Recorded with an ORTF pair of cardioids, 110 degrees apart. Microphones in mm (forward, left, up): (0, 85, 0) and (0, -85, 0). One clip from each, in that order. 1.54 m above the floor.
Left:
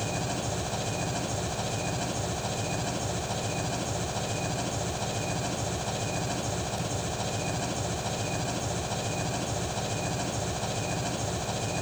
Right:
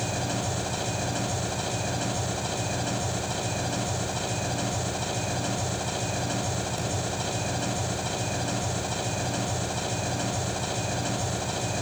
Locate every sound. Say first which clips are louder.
0.0 s an engine running: right 2 dB; 15° right, 8.5 m